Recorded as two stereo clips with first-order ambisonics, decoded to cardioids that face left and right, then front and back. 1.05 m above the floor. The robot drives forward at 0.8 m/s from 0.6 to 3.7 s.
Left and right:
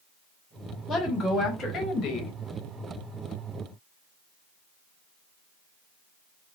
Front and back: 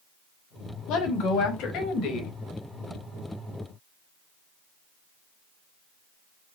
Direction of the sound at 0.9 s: 20° left.